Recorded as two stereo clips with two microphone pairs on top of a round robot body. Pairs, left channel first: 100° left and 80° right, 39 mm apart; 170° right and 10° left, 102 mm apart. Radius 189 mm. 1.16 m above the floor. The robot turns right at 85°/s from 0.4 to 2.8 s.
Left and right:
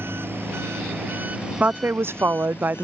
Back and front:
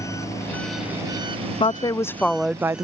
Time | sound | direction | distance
0.0 | an engine running | 105° right | ?
1.6 | a woman speaking | 135° right | ?